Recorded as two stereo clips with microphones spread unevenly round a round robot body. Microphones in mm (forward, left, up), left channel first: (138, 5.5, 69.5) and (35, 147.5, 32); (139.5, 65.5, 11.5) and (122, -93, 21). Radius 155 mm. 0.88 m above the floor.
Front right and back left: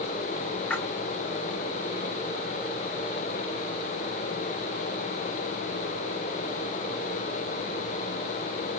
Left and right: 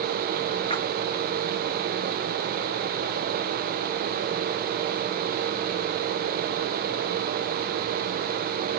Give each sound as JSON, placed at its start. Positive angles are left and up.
{"t": 0.7, "sound": "a splash", "azimuth_deg": 25, "distance_m": 4.5}